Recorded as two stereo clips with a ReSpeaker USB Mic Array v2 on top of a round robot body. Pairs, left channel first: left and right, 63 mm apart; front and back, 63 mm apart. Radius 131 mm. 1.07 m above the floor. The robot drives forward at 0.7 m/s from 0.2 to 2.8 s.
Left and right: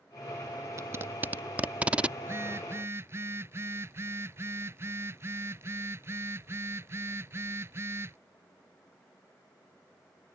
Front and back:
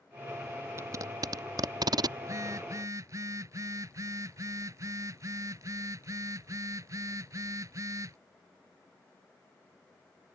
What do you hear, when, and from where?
0.8 s tape being pulled: 130° right; by 2.1 s 165° right
2.2 s a phone buzzing: 140° right